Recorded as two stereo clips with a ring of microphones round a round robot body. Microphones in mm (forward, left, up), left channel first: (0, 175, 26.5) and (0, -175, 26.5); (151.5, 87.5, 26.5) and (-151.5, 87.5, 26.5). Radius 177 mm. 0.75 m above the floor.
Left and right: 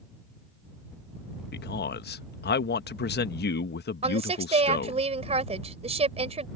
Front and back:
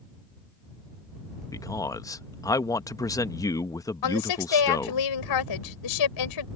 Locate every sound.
1.5 s a man speaking: 70° left
4.0 s a woman speaking: 15° right